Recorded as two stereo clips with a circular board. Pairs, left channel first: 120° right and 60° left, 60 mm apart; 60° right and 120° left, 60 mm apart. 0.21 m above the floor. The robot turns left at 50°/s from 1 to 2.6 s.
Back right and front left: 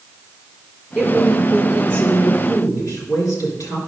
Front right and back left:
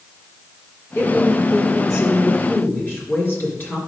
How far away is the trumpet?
No trumpet in this recording.